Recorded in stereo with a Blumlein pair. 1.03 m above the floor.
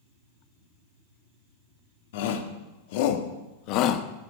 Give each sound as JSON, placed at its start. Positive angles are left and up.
{"t": 2.1, "sound": "a shout", "azimuth_deg": 55, "distance_m": 2.5}